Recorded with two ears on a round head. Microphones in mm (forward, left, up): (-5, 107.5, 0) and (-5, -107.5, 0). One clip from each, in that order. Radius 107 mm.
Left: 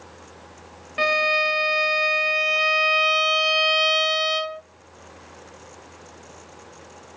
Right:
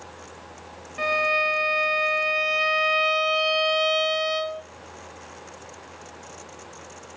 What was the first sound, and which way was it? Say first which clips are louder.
A violin: left 2 dB; 25° left (ahead or behind).